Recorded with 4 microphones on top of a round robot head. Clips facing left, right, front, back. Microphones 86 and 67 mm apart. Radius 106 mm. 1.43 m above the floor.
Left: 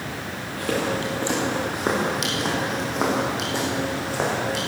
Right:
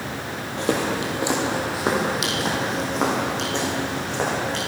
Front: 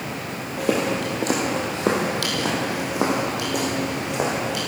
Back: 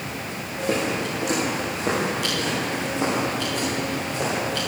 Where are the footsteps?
30° right, 2 m; by 4.6 s 10° left, 5 m.